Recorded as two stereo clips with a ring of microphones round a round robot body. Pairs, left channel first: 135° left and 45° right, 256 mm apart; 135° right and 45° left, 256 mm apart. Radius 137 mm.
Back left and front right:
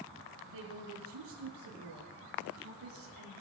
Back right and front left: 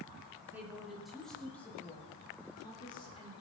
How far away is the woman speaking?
About 5 m.